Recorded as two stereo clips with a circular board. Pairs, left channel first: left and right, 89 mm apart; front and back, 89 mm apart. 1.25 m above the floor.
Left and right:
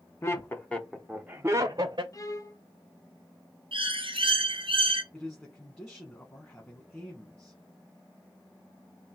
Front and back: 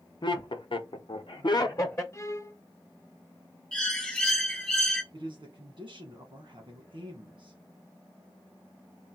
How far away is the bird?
About 0.8 m.